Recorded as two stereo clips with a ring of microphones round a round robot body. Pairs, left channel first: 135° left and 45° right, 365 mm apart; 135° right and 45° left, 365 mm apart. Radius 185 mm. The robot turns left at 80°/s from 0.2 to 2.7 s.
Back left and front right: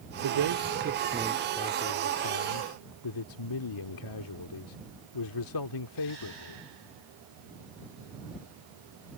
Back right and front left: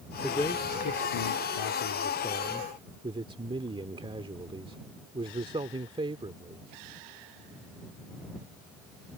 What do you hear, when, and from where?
0.2 s a man speaking: 40° right; by 6.6 s 120° left